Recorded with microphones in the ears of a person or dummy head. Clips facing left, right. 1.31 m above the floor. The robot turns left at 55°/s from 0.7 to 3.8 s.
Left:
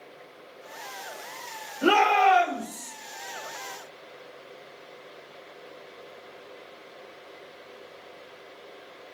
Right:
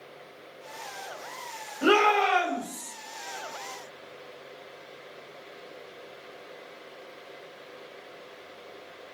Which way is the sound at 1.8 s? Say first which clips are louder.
Left 2 dB; 165° right.